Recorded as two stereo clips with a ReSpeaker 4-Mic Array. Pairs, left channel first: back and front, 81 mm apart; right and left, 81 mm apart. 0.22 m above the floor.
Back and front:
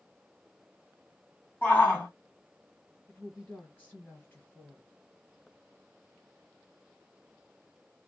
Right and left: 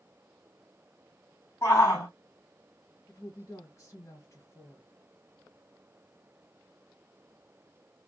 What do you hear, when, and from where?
1.6 s a shout: 125° right, 2.0 m
3.1 s a woman speaking: 115° right, 1.7 m